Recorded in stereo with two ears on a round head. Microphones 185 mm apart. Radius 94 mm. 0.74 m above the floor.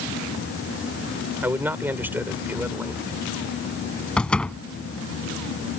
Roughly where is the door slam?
Centre.